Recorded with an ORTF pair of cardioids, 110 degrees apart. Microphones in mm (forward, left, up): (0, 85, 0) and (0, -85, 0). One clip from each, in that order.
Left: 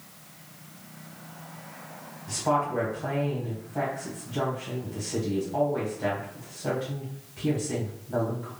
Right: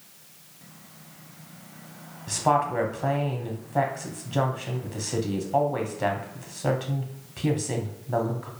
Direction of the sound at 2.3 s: 45° right.